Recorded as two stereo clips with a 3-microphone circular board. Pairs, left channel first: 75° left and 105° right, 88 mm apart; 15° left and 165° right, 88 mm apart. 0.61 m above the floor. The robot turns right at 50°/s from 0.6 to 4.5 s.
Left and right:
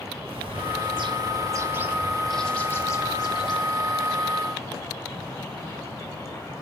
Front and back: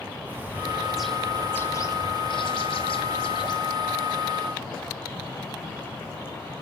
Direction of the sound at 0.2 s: 95° right.